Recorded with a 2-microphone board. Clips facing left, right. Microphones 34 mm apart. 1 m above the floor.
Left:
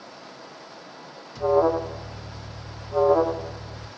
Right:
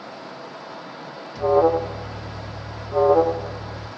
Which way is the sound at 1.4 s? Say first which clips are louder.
Right 3 dB; 10° right (ahead or behind).